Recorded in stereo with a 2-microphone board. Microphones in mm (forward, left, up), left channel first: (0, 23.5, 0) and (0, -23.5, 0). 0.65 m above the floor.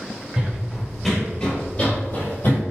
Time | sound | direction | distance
0.4 | running footsteps | 20° right (ahead or behind) | 1.1 m